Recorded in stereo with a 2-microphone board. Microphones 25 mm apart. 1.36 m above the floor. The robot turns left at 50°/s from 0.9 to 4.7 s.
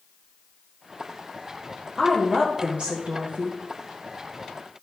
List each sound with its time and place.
2.0 s a woman speaking: 20° right, 1.7 m; by 3.6 s 100° right, 1.7 m